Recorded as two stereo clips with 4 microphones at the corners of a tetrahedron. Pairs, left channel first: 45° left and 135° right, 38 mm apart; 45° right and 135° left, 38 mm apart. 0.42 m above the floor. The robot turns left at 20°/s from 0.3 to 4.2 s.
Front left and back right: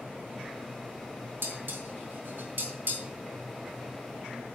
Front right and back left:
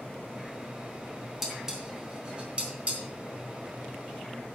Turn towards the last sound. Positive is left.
turn(degrees=160)